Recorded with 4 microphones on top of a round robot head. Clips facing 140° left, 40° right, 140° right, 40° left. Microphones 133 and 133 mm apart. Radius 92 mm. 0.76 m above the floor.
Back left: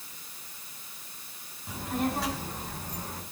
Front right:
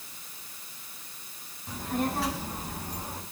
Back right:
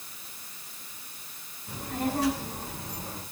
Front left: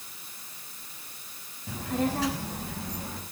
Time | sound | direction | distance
1.7 | a child speaking | 55° left | 5 m